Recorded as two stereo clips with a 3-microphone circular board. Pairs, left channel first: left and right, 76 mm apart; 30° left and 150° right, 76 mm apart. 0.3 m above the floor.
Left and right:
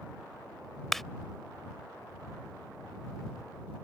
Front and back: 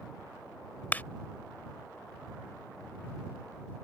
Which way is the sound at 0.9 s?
10° left.